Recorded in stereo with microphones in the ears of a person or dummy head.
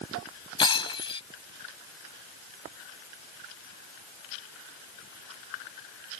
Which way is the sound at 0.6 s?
30° left (ahead or behind).